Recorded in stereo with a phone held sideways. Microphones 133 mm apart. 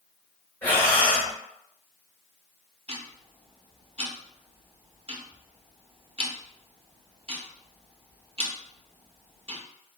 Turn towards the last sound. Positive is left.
turn(degrees=-45)  # may be behind; listen again after turning